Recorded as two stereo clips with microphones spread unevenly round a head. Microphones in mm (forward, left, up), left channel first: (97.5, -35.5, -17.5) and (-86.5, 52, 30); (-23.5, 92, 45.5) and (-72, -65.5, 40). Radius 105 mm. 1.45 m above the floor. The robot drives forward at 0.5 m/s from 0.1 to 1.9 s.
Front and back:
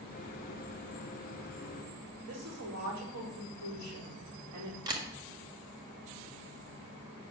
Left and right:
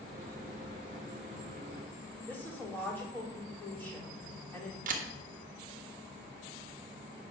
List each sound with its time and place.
2.3 s a woman speaking: 150° left, 4.5 m
4.9 s a camera shutter: 140° right, 1.4 m